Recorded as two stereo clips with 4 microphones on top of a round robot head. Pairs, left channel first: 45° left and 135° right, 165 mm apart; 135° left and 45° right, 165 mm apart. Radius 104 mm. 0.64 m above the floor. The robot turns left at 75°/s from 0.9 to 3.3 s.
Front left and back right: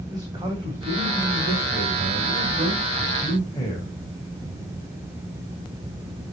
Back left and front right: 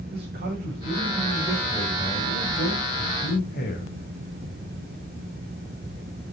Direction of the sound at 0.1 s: 70° right.